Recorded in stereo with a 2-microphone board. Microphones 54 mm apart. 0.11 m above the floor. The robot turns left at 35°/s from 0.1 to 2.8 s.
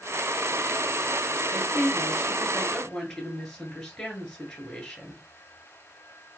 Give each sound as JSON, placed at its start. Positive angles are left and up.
{"t": 1.5, "sound": "a woman speaking", "azimuth_deg": -150, "distance_m": 1.2}